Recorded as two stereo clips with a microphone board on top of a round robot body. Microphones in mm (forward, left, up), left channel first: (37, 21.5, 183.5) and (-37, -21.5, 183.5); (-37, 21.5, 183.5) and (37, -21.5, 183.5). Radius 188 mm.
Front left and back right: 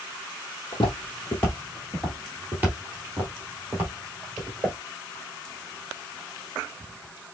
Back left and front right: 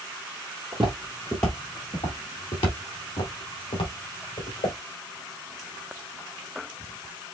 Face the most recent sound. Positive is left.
turn(degrees=145)